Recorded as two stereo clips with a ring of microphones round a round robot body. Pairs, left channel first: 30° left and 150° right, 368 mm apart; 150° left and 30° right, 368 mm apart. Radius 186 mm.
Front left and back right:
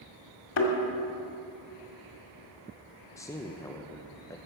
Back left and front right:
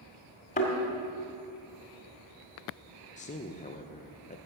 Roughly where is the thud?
Left.